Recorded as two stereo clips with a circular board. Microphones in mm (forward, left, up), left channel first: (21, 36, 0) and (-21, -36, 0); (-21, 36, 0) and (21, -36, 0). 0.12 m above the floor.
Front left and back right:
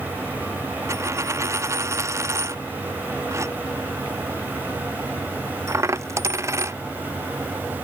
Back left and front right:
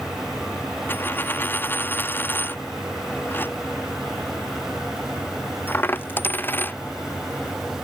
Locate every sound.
0.9 s a dropped coin: 175° right